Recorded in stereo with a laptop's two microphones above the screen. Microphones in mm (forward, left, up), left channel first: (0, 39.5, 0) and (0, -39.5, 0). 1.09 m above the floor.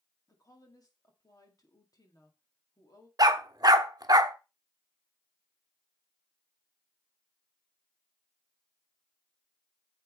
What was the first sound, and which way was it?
A woman speaking, 50° left (ahead or behind).